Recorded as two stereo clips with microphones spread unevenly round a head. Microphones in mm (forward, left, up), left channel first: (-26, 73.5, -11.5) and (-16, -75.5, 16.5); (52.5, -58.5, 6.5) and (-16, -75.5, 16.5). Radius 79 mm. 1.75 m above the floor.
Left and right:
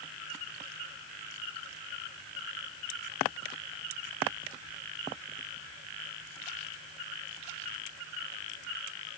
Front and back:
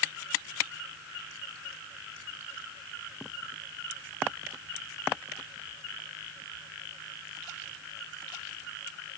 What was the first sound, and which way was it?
Only background noise.